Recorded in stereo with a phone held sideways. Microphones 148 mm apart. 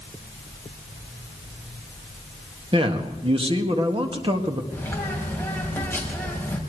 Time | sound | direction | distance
2.7 | a man speaking | 40° right (ahead or behind) | 1.8 m
4.7 | a bird | 15° left (ahead or behind) | 3.5 m